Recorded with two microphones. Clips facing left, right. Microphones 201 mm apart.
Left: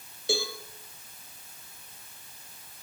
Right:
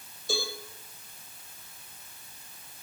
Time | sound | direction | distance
0.3 | a cowbell | 80° left | 3 m